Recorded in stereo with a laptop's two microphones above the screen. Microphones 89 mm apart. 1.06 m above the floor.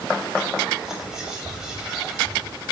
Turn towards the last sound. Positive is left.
turn(degrees=-5)  # may be behind; listen again after turning